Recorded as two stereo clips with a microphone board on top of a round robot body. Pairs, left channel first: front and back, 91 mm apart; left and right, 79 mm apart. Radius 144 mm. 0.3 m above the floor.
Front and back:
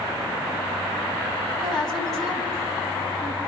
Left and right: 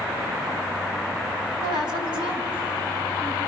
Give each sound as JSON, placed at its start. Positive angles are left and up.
{"t": 1.6, "sound": "a woman speaking", "azimuth_deg": -85, "distance_m": 4.0}